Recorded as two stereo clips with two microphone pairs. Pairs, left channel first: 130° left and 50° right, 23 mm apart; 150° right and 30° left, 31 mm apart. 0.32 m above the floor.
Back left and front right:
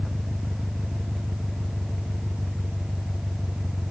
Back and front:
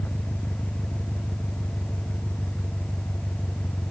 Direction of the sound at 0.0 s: 160° right.